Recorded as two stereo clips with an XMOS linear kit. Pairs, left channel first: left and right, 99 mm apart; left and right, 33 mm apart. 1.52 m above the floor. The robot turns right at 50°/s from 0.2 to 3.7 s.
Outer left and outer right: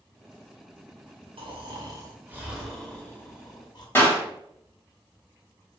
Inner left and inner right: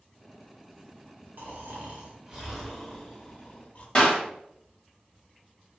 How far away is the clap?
About 1.0 m.